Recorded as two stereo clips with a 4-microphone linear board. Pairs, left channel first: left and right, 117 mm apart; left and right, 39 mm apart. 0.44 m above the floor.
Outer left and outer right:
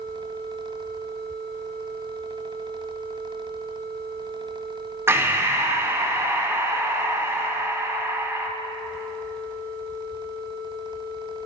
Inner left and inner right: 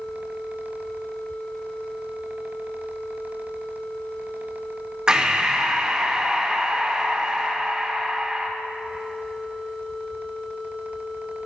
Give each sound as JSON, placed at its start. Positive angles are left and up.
{"t": 5.1, "sound": "breathing", "side_deg": -20, "distance_m": 0.9}